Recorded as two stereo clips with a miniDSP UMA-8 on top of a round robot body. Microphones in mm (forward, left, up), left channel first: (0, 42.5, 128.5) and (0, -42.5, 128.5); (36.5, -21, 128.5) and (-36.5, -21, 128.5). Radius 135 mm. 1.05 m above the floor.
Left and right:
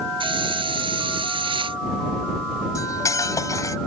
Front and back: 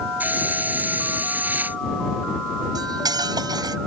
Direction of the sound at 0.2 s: 110° right.